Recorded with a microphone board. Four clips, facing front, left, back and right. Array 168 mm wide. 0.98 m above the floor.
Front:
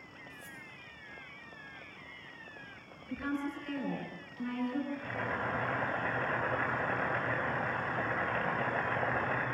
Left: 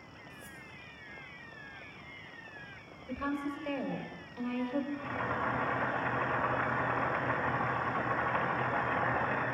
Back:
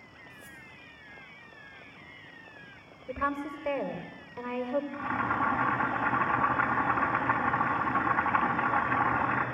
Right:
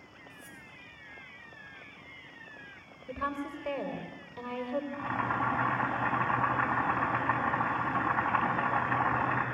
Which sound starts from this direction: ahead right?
Cutlery clinking, at 0.3 s.